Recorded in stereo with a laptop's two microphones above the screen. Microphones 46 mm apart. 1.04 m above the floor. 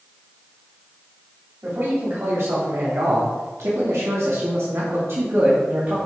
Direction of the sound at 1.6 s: 60° right (ahead or behind).